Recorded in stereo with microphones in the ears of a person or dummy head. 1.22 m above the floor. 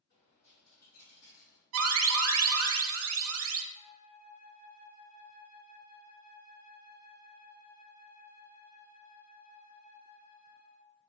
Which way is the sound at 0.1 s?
55° left (ahead or behind).